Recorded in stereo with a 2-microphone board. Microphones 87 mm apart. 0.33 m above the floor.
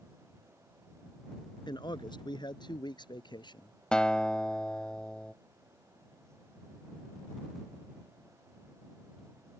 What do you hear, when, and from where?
1.7 s a man speaking: 60° left (ahead or behind)
3.9 s a guitar: 10° left (ahead or behind)